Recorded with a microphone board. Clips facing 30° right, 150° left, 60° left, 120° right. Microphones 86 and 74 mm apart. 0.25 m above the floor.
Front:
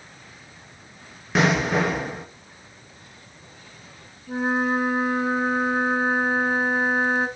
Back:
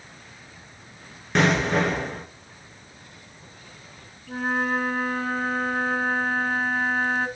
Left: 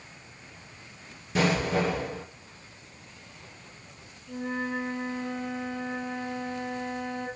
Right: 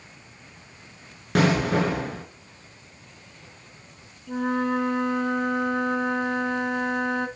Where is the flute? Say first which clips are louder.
Front 2 dB, right 7 dB; 105° right, 1.1 m.